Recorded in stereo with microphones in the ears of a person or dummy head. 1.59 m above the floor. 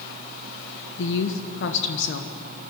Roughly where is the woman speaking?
Left.